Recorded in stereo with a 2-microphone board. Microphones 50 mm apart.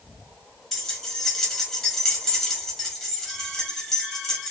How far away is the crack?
I don't hear a crack.